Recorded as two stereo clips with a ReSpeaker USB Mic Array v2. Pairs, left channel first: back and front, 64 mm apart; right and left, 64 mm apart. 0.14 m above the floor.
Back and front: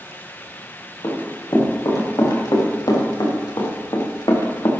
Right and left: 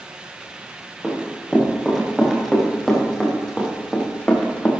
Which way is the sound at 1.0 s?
Straight behind.